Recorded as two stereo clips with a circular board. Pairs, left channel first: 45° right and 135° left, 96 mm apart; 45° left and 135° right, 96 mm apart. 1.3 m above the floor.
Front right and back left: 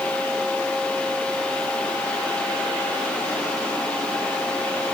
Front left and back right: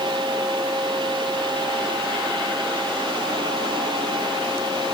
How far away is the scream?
No scream in this recording.